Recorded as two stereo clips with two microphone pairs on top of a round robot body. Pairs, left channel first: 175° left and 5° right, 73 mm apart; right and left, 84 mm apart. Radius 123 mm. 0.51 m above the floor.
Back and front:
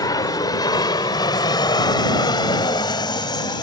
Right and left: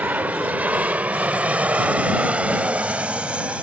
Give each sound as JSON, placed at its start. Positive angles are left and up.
{"t": 0.0, "sound": "an aircraft", "azimuth_deg": 155}